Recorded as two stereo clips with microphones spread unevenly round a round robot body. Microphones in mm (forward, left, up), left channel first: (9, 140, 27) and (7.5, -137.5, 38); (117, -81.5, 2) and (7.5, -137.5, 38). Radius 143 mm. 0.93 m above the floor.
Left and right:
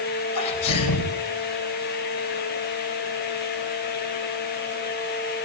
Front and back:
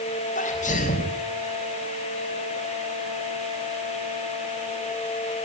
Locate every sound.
0.3 s a sneeze: 70° left, 4.5 m